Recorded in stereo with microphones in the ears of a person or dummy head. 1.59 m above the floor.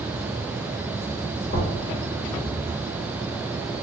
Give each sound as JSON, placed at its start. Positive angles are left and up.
{"t": 1.5, "sound": "knocking", "side_deg": 50, "distance_m": 1.4}